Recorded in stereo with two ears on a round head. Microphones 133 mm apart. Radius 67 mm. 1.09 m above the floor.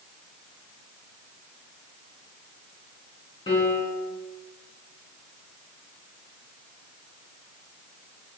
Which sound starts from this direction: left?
A piano, at 3.5 s.